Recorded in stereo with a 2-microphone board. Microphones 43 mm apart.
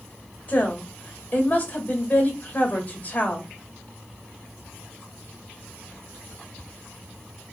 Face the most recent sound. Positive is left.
turn(degrees=30)  # may be behind; listen again after turning